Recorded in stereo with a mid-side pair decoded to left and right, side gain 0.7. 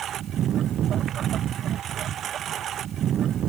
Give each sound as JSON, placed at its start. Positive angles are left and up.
{"t": 0.0, "sound": "a lawn mower", "azimuth_deg": -40}